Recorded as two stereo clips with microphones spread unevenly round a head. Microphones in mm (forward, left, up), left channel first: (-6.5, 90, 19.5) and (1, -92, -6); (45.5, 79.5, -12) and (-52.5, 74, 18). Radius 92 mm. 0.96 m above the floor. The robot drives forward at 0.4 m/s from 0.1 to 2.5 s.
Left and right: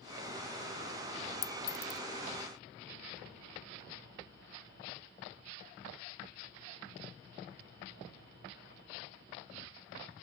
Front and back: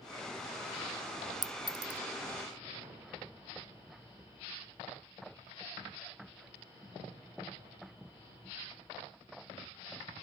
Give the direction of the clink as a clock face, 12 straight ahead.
7 o'clock.